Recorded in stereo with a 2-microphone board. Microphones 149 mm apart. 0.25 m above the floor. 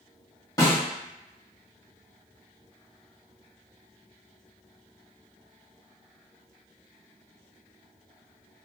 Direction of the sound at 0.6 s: 25° left (ahead or behind).